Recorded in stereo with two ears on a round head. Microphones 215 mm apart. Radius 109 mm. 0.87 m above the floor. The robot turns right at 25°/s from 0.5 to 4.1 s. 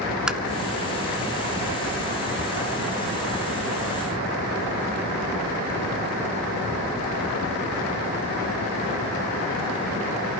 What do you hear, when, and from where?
0.3 s tapping: 5° right (ahead or behind), 0.5 m